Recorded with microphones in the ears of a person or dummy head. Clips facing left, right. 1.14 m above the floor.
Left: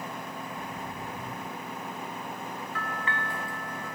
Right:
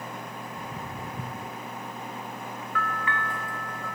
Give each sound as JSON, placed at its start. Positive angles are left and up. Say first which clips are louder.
{"t": 0.6, "sound": "footsteps", "louder": "even", "side_deg": -35, "distance_m": 2.5}
{"t": 2.8, "sound": "a bell", "louder": "right 4 dB", "side_deg": 20, "distance_m": 1.7}